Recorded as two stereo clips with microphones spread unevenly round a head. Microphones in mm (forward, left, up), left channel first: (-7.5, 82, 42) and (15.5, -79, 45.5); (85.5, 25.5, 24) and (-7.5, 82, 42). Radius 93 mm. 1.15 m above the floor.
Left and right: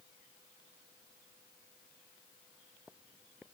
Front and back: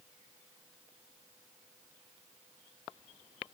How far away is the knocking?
No knocking in this recording.